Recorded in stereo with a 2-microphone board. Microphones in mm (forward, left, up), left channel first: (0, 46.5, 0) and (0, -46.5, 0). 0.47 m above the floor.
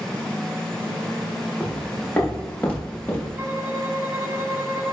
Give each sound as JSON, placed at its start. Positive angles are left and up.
{"t": 1.6, "sound": "footsteps", "side_deg": 0, "distance_m": 5.0}
{"t": 3.4, "sound": "a violin", "side_deg": -25, "distance_m": 1.8}